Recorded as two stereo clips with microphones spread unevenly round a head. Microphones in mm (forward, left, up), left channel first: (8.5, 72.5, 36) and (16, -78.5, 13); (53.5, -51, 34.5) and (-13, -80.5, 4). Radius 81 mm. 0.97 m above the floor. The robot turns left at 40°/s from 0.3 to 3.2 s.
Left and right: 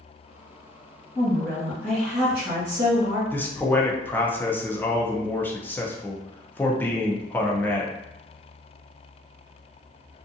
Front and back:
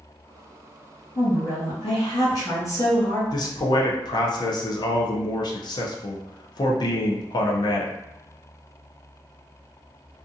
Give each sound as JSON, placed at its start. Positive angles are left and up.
{"t": 1.1, "sound": "a woman speaking", "azimuth_deg": 30, "distance_m": 1.7}
{"t": 3.3, "sound": "a man speaking", "azimuth_deg": 10, "distance_m": 0.6}